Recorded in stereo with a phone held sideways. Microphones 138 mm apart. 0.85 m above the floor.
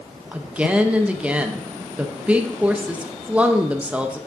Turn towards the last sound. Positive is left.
turn(degrees=-10)  # may be behind; listen again after turning